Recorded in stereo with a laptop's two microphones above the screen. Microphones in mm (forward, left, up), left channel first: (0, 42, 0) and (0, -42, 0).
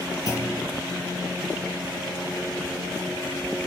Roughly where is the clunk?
Left.